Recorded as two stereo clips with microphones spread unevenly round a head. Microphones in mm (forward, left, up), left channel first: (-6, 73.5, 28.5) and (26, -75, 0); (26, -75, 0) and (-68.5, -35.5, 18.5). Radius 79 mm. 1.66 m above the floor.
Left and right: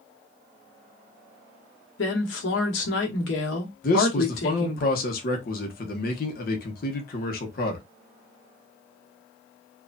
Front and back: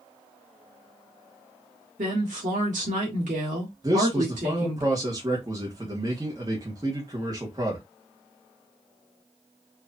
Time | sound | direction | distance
2.0 | a woman speaking | 115° left | 1.6 m
3.8 | a man speaking | 100° left | 1.1 m